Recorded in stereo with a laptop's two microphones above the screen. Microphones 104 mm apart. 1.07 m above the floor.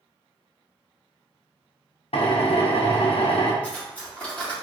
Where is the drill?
65° left (ahead or behind), 0.5 m.